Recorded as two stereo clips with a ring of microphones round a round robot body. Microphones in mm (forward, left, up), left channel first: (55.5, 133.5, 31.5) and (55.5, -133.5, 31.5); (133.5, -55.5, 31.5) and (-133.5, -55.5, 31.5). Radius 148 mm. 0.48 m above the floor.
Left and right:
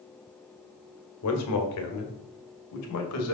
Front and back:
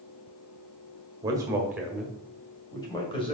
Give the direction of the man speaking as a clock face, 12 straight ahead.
8 o'clock.